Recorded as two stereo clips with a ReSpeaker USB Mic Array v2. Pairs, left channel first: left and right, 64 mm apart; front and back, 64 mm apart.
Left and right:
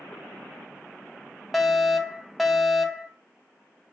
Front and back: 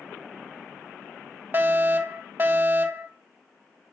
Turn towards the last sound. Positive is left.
turn(degrees=180)